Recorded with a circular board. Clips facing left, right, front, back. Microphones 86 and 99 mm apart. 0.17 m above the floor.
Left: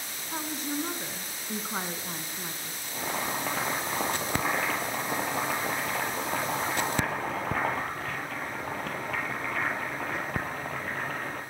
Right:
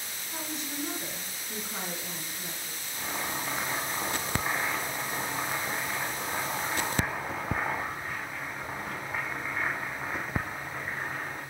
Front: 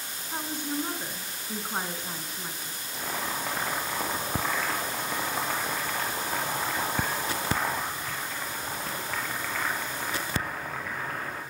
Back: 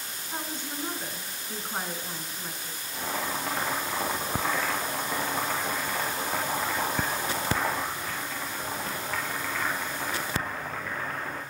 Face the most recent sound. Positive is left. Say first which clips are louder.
# left 3 dB, back 1 dB
turn(degrees=90)